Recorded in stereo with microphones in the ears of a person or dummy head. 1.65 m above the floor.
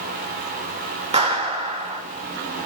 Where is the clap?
30° right (ahead or behind), 3 m.